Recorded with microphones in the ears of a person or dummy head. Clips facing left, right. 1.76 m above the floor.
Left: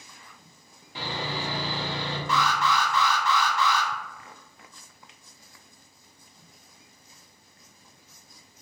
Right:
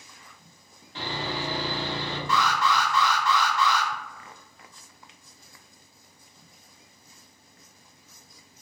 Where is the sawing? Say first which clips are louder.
Right 1 dB; 10° left (ahead or behind), 0.7 m.